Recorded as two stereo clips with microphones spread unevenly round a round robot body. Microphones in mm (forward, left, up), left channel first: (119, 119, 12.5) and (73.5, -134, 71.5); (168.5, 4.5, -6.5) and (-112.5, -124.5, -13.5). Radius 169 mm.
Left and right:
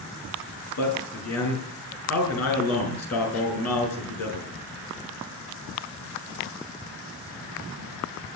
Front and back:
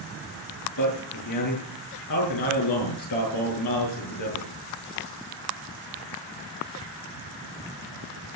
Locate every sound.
0.8 s a man speaking: 55° left, 6.5 m